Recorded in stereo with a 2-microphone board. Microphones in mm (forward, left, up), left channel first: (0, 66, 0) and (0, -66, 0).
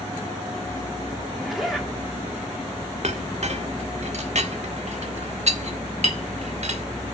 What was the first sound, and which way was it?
A zipper, centre (ahead or behind).